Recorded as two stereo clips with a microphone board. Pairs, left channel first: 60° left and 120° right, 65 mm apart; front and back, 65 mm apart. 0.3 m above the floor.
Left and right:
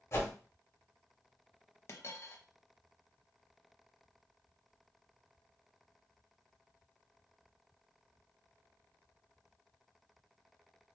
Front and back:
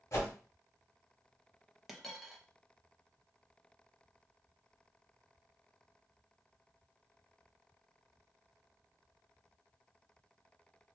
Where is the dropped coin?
90° left, 0.6 m.